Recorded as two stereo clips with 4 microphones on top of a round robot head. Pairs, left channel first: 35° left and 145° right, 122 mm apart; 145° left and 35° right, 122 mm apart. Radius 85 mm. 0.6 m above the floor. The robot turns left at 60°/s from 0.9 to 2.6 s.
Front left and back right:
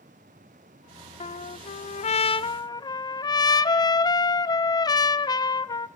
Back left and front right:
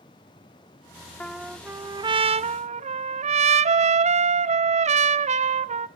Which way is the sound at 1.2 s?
65° left.